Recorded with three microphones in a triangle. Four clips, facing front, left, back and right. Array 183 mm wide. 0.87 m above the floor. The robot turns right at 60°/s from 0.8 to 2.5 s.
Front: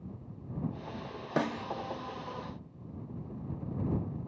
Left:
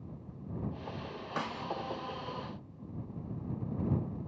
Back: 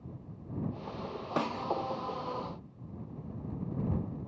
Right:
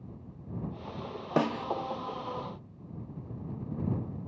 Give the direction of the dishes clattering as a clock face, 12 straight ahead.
No dishes clattering in this recording.